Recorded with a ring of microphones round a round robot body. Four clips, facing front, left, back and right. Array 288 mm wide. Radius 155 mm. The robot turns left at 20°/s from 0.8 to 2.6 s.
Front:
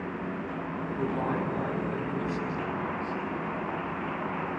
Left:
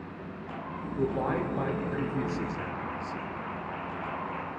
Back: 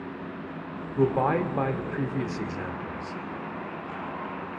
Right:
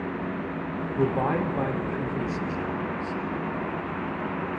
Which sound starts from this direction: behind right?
A man speaking, at 1.0 s.